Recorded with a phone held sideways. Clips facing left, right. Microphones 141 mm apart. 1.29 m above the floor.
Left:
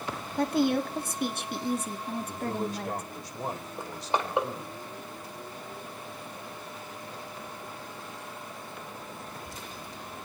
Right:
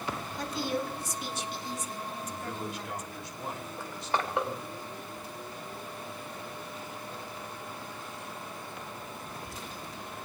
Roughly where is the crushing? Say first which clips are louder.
Left 2 dB; left.